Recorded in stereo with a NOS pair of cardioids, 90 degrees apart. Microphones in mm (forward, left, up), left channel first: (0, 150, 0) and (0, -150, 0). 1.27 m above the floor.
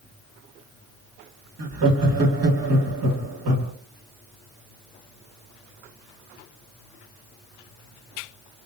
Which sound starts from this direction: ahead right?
Laughter, at 1.6 s.